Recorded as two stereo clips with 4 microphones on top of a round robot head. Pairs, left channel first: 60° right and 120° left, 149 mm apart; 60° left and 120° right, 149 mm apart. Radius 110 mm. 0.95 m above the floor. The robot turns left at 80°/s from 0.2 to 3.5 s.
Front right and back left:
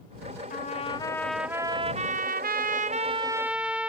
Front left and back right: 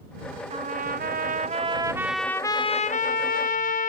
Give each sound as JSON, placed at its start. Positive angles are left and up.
{"t": 0.5, "sound": "a trumpet", "azimuth_deg": -80}